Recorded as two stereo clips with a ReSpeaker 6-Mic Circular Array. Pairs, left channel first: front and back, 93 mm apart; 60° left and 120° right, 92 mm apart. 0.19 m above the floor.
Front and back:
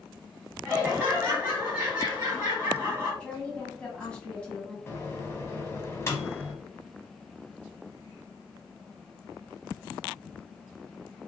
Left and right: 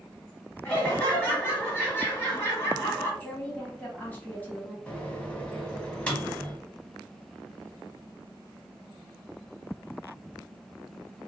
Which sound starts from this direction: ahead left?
A woman speaking, at 3.2 s.